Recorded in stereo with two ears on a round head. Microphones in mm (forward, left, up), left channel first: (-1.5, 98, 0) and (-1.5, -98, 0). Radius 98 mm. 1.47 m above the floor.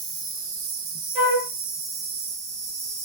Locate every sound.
0.0 s an insect: 60° right (ahead or behind), 0.7 m
1.1 s a flute: 5° right (ahead or behind), 1.7 m